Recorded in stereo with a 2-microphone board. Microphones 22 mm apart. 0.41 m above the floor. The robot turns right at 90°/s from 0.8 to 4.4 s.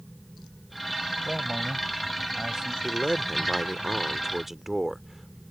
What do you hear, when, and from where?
1.2 s a man speaking: 150° right; by 2.7 s 15° right
2.8 s a man speaking: 5° right (ahead or behind); by 5.4 s 10° right (ahead or behind)